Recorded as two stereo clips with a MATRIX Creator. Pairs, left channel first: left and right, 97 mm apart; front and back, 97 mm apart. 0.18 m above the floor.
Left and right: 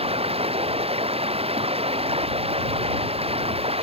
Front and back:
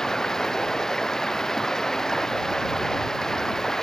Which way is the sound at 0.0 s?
85° right.